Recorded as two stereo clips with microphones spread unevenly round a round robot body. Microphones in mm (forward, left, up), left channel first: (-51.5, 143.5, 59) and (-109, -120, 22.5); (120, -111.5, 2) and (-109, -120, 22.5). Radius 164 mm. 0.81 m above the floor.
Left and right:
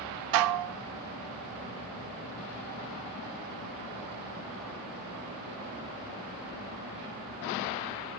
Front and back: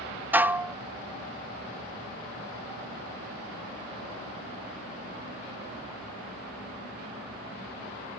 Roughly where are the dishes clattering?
Right.